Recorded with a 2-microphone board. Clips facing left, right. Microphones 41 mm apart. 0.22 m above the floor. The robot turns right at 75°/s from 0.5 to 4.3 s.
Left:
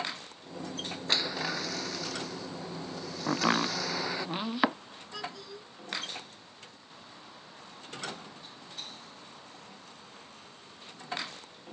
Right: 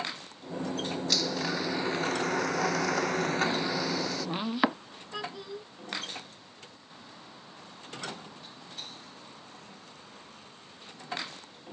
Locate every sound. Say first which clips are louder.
1.1 s a blender: left 1 dB; 150° left; by 4.3 s 25° left
3.3 s chopping: left 1 dB; 75° left (ahead or behind); by 4.8 s centre (ahead or behind)
5.1 s a child speaking: right 3 dB; 20° right (ahead or behind)